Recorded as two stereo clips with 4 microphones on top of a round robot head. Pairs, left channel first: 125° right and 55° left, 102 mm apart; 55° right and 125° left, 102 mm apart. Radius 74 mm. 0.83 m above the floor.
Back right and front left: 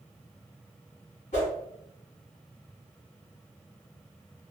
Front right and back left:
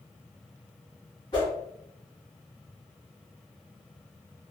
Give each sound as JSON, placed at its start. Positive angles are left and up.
{"t": 1.3, "sound": "a whoosh", "azimuth_deg": -110, "distance_m": 1.4}